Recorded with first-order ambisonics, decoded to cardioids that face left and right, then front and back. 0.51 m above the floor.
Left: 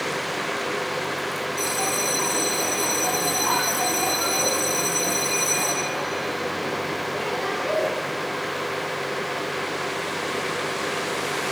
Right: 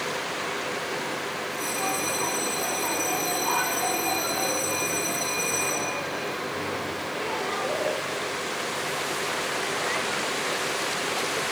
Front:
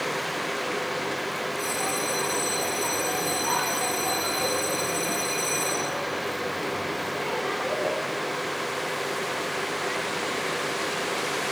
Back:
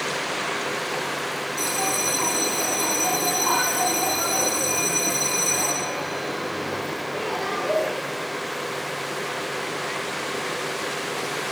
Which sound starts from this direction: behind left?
A bell, at 1.6 s.